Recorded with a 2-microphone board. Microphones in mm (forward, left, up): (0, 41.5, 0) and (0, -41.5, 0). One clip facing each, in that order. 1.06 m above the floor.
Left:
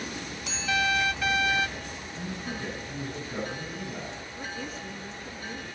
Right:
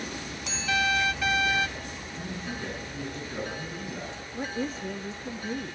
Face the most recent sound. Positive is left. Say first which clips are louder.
# right 8 dB
turn(degrees=-30)  # may be behind; listen again after turning